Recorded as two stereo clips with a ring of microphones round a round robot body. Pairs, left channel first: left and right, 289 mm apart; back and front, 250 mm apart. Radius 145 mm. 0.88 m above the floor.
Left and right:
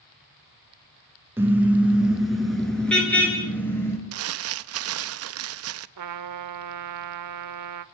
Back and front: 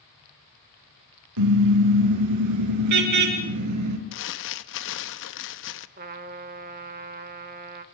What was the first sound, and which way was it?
A car horn, 5° right.